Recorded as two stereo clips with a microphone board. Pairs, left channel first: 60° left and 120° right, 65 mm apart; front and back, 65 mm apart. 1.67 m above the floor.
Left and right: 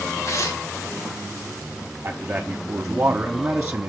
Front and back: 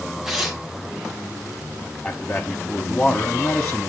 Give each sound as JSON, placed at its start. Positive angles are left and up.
{"t": 0.2, "sound": "tearing paper", "azimuth_deg": 95, "distance_m": 1.9}
{"t": 2.0, "sound": "a man speaking", "azimuth_deg": -75, "distance_m": 0.9}